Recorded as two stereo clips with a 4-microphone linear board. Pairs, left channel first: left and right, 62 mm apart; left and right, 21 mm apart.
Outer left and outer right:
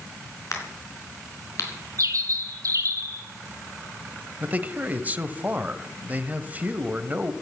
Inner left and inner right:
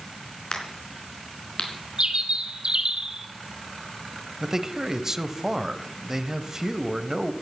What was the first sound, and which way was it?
A crack, 55° left (ahead or behind).